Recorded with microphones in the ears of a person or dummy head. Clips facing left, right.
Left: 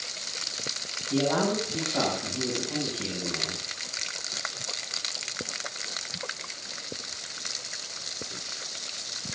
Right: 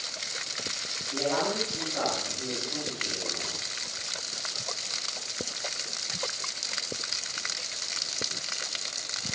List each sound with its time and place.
1.1 s a man speaking: 90° left, 9 m